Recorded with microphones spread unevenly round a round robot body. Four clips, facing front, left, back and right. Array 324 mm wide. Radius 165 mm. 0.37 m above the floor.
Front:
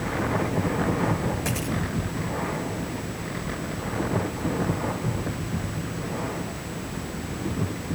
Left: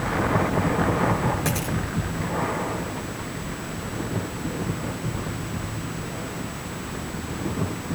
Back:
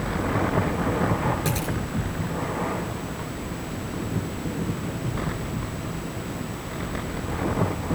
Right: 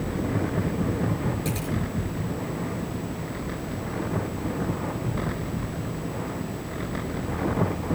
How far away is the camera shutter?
About 5.5 m.